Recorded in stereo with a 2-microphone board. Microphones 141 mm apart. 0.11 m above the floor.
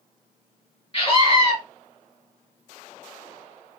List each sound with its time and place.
0.9 s a scream: 35° left (ahead or behind), 1.7 m